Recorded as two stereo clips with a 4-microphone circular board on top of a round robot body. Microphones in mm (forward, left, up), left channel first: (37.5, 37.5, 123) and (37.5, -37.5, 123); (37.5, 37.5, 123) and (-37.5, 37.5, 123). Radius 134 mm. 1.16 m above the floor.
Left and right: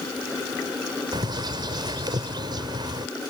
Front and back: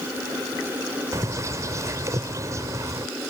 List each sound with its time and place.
1.1 s a bird: 125° right